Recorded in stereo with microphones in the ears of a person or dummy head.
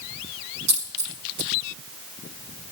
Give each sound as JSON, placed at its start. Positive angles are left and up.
{"t": 0.7, "sound": "a dropped coin", "side_deg": -65, "distance_m": 4.0}